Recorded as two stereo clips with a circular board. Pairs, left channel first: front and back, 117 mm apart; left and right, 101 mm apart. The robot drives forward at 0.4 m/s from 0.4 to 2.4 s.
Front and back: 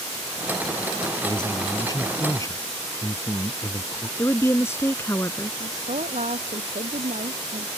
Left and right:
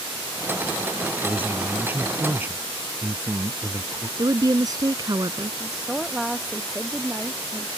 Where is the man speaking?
25° right; by 4.1 s 35° right.